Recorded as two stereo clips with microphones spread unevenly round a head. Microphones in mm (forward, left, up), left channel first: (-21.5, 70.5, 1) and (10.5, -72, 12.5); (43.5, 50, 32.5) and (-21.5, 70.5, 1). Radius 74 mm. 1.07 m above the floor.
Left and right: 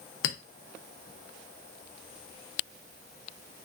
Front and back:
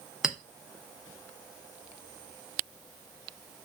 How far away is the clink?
About 0.6 m.